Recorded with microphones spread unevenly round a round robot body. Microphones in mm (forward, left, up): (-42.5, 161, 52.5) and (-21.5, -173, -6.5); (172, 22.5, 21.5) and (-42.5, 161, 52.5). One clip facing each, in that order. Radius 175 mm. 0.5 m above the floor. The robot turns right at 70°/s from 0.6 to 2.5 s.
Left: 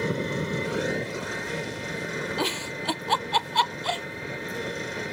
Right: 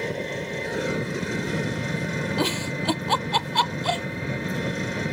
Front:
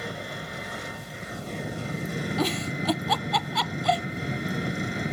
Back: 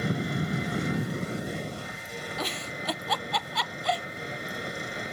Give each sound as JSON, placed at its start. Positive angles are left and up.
{"t": 0.0, "sound": "an engine running", "azimuth_deg": 165}
{"t": 2.4, "sound": "a giggle", "azimuth_deg": -70}